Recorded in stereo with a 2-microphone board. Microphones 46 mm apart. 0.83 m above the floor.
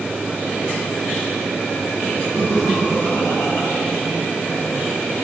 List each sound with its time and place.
2.3 s laughter: 80° left, 5.5 m